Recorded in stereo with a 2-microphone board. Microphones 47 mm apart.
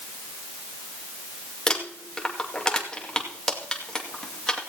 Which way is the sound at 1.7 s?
15° left (ahead or behind).